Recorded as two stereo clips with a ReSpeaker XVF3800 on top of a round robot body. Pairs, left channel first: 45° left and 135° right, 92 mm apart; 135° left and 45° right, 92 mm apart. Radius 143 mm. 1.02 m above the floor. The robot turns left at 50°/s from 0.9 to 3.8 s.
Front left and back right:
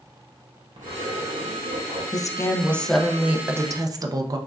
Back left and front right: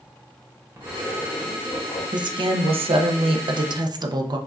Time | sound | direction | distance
0.8 | a zipper | 105° right | 0.7 m
2.1 | a woman speaking | 5° right | 0.6 m